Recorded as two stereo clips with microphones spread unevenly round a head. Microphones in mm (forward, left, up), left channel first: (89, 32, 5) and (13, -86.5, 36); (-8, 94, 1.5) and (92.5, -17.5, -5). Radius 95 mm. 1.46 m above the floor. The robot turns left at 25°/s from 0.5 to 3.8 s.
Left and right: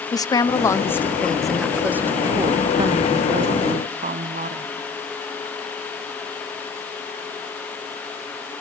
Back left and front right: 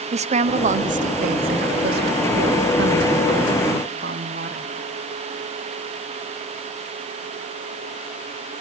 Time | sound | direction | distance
0.1 | a woman speaking | 5° right | 0.7 m